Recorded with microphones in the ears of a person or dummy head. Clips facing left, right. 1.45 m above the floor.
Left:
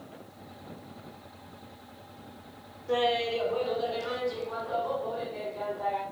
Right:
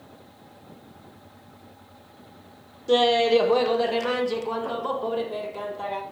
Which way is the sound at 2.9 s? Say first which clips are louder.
Right 9 dB; 45° right (ahead or behind).